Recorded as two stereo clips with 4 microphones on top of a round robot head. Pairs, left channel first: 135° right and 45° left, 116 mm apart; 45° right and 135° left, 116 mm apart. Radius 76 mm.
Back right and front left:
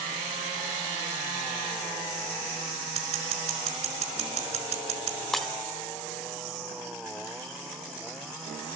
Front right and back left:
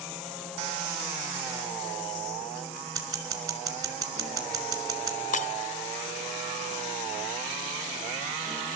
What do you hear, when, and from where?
3.0 s scissors: 75° left, 4.5 m
5.3 s breaking glass: 45° right, 1.3 m